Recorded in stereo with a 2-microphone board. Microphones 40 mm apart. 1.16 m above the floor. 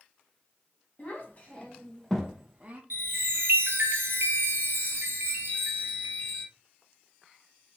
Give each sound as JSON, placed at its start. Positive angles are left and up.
{"t": 1.0, "sound": "a child speaking", "side_deg": 40, "distance_m": 1.2}
{"t": 2.9, "sound": "a chime", "side_deg": -70, "distance_m": 1.2}